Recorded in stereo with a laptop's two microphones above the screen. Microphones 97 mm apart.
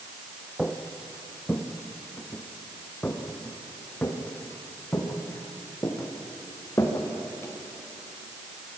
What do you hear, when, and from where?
0.6 s footsteps: 5° left (ahead or behind), 2 m; by 7.5 s 25° left (ahead or behind), 6 m